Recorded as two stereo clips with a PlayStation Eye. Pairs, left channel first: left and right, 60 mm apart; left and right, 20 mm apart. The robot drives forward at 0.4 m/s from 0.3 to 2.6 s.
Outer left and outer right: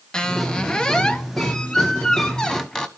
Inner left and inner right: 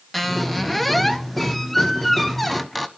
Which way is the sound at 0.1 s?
15° left (ahead or behind).